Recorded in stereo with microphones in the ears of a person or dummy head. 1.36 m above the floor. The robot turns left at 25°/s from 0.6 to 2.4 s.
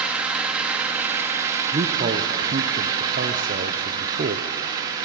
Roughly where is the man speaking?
Right.